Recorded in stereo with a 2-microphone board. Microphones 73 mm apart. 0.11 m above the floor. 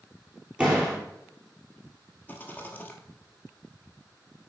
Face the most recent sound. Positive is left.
turn(degrees=25)  # may be behind; listen again after turning